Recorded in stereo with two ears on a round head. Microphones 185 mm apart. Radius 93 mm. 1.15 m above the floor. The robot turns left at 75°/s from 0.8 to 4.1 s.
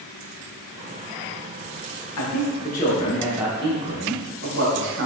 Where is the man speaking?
85° left, 1.0 m; by 5.1 s 60° right, 1.0 m.